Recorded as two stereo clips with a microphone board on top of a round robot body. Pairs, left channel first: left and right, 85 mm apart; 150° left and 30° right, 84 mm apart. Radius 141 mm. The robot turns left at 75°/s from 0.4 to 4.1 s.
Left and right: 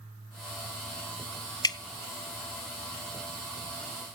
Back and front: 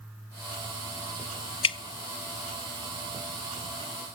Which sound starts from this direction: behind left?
Dripping, at 1.6 s.